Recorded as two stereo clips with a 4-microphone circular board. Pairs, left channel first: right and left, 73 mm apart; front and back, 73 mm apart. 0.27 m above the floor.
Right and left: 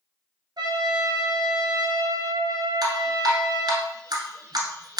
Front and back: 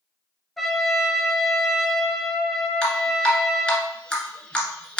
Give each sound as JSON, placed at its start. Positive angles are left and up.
{"t": 0.6, "sound": "a trumpet", "azimuth_deg": 90, "distance_m": 0.8}
{"t": 2.8, "sound": "dripping", "azimuth_deg": 75, "distance_m": 1.2}